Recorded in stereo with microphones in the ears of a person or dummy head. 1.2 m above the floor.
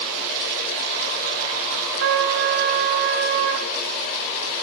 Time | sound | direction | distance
2.0 | a trumpet | 65° right (ahead or behind) | 2.5 m